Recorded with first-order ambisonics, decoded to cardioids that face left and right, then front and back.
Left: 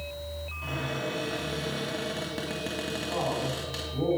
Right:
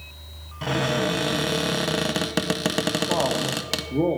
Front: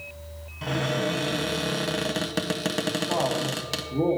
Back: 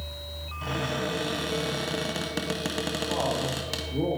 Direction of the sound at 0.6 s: 80° right.